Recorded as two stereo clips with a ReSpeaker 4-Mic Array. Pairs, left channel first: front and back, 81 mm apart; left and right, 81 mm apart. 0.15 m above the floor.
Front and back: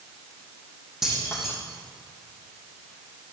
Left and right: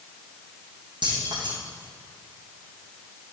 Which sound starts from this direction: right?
Keys jangling, at 1.0 s.